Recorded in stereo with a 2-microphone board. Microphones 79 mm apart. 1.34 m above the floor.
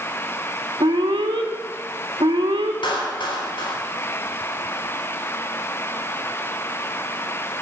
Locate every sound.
0.8 s an alarm: 80° right, 2 m
2.8 s a clap: 80° left, 3.5 m